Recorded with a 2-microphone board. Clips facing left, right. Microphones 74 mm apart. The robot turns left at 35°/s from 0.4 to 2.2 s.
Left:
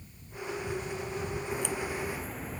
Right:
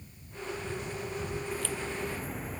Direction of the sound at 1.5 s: 25° left (ahead or behind).